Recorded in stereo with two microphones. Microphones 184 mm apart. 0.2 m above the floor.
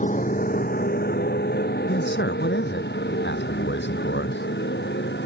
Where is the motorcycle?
45° left (ahead or behind); by 5.3 s 75° left (ahead or behind).